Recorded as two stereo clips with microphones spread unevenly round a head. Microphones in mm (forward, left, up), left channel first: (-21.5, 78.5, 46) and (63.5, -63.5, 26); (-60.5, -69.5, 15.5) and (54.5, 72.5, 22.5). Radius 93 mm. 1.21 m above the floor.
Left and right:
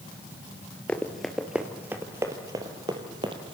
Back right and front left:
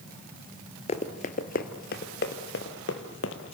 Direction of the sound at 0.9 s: 170° right.